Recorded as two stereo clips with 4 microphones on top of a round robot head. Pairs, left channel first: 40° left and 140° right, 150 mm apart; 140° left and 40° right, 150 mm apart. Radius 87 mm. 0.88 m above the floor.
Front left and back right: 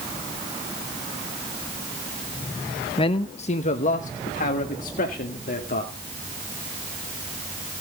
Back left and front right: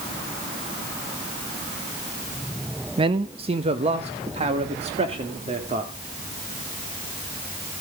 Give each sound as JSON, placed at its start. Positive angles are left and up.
{"t": 3.0, "sound": "a man speaking", "azimuth_deg": 0, "distance_m": 0.7}